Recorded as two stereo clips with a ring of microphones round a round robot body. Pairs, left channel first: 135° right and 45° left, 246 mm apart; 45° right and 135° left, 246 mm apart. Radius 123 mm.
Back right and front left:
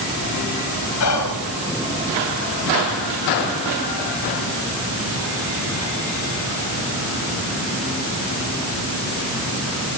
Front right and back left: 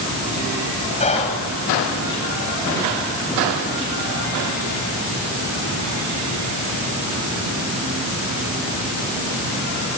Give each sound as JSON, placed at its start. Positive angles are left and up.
{"t": 1.0, "sound": "whispering", "azimuth_deg": -110, "distance_m": 4.0}